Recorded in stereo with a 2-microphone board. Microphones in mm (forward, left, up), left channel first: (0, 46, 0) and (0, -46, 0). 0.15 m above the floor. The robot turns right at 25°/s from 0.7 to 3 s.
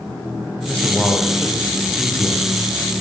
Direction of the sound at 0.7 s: 160° left.